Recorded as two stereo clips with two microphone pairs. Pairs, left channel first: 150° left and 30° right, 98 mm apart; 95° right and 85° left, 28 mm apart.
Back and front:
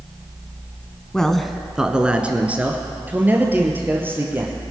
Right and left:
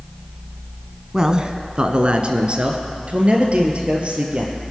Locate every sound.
1.1 s a man speaking: 75° left, 1.0 m; by 4.5 s 40° left, 3.5 m